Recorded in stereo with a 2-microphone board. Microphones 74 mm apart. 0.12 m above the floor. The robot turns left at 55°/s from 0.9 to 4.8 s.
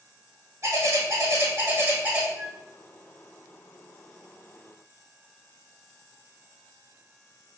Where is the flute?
25° right (ahead or behind), 1.1 m; by 2.7 s 35° right (ahead or behind), 1.1 m.